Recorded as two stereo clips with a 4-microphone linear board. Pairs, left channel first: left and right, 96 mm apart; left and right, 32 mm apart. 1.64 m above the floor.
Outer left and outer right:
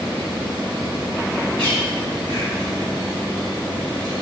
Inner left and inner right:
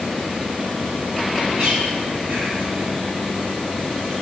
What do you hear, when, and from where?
1.6 s a bird: 65° right (ahead or behind), 3.5 m